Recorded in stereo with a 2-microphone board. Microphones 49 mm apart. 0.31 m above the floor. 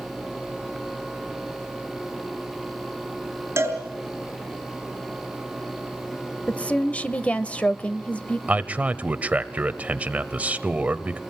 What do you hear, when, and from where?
3.6 s a cowbell: 60° right (ahead or behind), 6 m
6.5 s a woman speaking: 25° left (ahead or behind), 0.9 m
8.5 s a man speaking: 30° right (ahead or behind), 1.0 m